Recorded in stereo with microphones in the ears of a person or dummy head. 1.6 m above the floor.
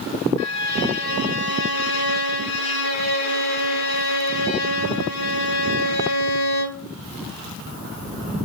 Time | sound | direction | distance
0.4 | a violin | 75° left (ahead or behind) | 0.8 m